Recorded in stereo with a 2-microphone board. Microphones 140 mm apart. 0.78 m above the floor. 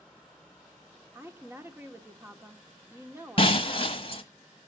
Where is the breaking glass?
40° left (ahead or behind), 1.3 m.